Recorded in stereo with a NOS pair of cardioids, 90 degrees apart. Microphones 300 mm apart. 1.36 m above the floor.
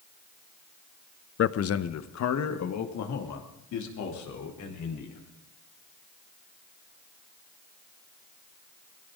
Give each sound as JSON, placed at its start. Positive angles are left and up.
{"t": 1.4, "sound": "a man speaking", "azimuth_deg": 45, "distance_m": 0.8}